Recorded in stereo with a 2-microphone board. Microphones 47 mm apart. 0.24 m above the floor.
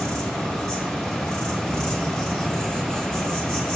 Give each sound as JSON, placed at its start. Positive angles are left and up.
{"t": 0.0, "sound": "an insect", "side_deg": 15, "distance_m": 1.3}